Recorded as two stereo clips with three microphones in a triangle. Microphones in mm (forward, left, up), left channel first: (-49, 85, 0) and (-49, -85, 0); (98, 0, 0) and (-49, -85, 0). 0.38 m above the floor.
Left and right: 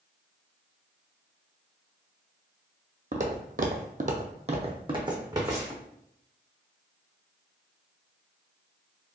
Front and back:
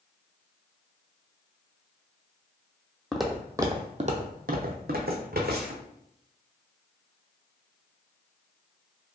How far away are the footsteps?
About 0.7 m.